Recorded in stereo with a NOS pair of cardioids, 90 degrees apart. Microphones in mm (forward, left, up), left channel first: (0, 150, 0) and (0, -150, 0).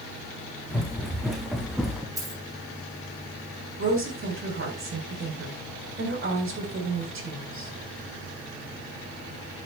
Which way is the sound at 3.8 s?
40° right.